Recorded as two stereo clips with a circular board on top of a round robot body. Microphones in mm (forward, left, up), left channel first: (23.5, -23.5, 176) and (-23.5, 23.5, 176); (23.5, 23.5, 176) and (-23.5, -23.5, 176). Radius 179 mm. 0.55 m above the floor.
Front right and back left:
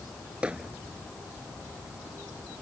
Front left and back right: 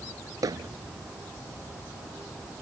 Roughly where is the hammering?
Behind right.